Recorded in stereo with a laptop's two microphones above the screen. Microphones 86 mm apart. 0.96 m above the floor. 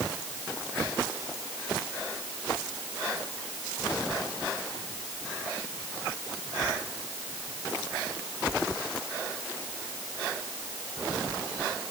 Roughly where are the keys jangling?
I don't hear keys jangling.